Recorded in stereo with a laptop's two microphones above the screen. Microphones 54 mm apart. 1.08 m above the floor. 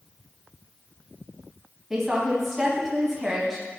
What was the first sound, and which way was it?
A woman speaking, 10° right (ahead or behind).